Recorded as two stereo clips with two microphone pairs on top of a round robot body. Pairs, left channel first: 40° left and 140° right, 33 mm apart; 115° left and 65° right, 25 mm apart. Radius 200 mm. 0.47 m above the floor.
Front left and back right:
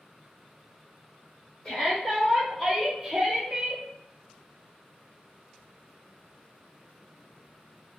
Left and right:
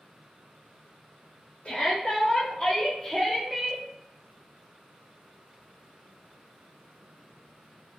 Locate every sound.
1.6 s a shout: 75° left, 1.8 m; by 3.8 s 120° right, 1.4 m